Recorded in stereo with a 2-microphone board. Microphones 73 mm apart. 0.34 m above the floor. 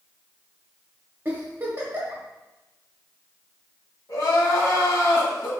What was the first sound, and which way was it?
A giggle, 30° right (ahead or behind).